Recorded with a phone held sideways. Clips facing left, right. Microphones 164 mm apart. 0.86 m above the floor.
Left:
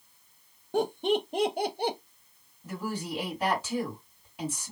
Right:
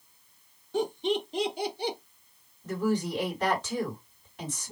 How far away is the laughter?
About 0.7 m.